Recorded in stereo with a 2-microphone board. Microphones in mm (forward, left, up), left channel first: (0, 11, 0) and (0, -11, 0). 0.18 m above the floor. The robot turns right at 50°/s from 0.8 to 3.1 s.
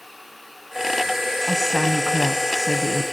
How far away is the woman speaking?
About 1.3 m.